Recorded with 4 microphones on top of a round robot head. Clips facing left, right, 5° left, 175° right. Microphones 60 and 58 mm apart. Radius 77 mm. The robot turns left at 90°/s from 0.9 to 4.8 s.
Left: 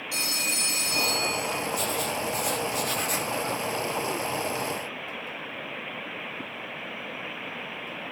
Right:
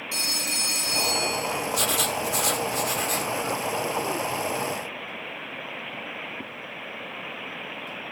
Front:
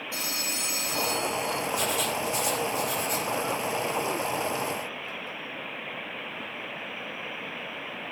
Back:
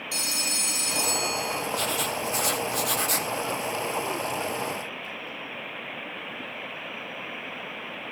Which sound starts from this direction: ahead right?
Writing, at 1.7 s.